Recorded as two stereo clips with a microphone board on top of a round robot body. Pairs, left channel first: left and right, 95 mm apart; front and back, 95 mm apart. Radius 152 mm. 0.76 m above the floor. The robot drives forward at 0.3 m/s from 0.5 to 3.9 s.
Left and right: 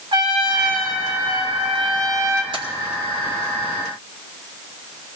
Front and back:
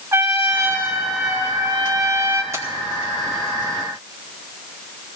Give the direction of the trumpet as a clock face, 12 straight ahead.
4 o'clock.